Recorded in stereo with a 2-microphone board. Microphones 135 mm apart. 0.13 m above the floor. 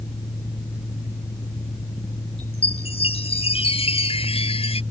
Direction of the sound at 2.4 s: 45° left (ahead or behind).